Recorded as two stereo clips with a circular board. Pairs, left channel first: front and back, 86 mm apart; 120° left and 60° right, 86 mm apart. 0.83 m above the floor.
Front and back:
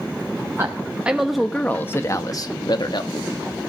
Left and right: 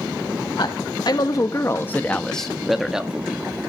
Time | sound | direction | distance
0.6 | a man speaking | 125° left | 0.9 m